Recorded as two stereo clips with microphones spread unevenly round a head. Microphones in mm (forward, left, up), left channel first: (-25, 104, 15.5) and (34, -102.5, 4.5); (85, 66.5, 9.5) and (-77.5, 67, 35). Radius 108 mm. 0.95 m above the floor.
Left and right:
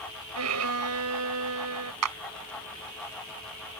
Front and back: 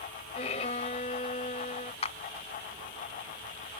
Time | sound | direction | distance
0.3 | a violin | 65° right | ?
2.0 | a clap | 65° right | ?